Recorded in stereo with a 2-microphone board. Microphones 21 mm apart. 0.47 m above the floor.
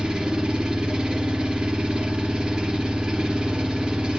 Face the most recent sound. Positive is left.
turn(degrees=-35)  # may be behind; listen again after turning